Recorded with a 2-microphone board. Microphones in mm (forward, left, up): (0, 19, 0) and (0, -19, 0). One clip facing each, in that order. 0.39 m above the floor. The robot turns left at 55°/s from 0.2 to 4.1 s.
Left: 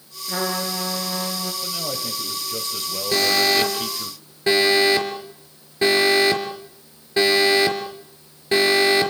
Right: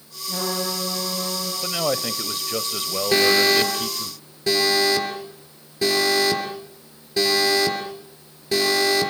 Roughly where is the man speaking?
Ahead right.